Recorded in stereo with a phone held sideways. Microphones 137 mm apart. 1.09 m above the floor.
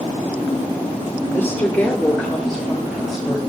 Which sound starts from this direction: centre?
A woman speaking, at 1.3 s.